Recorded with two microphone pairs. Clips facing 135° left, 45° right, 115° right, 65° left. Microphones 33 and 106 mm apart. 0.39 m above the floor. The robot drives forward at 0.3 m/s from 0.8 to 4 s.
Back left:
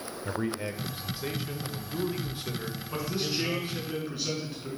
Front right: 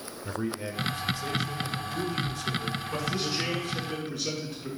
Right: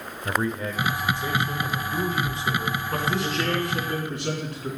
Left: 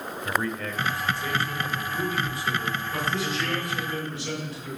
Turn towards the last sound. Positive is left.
turn(degrees=-145)